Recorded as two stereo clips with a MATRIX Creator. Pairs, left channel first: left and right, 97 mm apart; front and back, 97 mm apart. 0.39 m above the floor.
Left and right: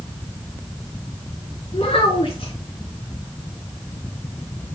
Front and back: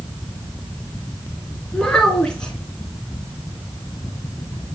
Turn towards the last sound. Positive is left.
turn(degrees=80)